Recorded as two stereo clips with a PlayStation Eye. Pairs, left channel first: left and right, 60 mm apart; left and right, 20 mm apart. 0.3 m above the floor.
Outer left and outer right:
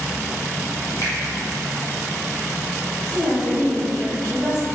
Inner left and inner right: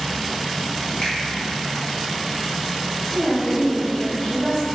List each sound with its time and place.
1.0 s a finger snap: 65° left (ahead or behind), 1.5 m
3.0 s a woman speaking: 35° left (ahead or behind), 1.8 m